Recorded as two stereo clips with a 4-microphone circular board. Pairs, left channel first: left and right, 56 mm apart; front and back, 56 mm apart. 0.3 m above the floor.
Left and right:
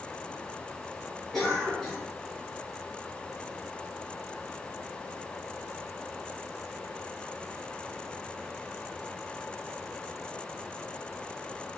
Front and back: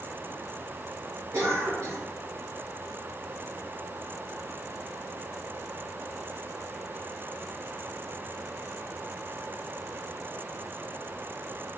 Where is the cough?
170° left, 2.5 m.